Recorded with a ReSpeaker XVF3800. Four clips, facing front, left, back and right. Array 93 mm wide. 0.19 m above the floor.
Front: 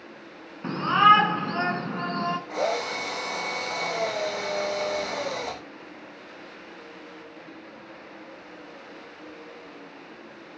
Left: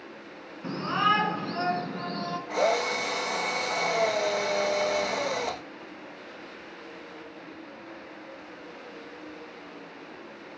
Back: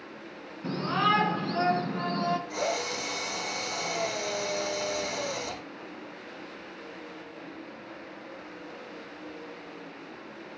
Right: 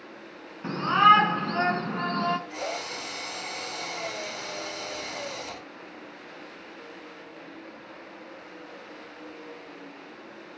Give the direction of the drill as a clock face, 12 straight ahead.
10 o'clock.